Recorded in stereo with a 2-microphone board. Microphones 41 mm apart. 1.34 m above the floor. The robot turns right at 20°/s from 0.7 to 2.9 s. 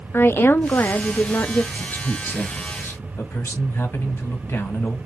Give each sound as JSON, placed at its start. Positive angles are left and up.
{"t": 0.1, "sound": "a woman speaking", "side_deg": 55, "distance_m": 0.5}
{"t": 1.7, "sound": "a man speaking", "side_deg": 45, "distance_m": 1.5}